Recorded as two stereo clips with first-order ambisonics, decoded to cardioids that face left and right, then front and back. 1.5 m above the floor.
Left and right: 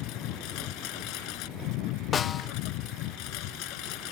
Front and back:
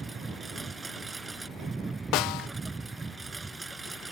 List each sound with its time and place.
0.0 s a lawn mower: 105° left
2.1 s a snare drum: 25° left